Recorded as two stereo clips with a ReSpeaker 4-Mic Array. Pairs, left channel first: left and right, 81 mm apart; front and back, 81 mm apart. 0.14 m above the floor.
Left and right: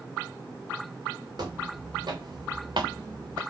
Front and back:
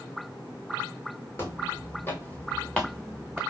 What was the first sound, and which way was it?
Footsteps, 55° right.